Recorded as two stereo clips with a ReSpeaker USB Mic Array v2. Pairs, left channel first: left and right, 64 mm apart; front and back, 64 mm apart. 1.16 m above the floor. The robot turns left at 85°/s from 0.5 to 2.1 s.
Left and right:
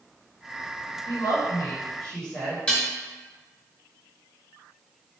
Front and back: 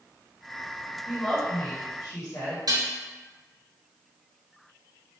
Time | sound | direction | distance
1.1 | a woman speaking | 90° left | 1.7 m
2.7 | dishes clattering | 165° left | 1.0 m